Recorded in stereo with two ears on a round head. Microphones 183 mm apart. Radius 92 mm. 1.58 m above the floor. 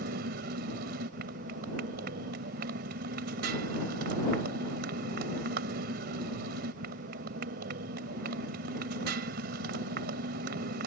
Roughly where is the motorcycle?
Right.